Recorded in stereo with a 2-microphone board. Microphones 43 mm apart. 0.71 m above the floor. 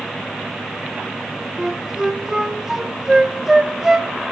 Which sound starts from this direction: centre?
A flute, at 1.6 s.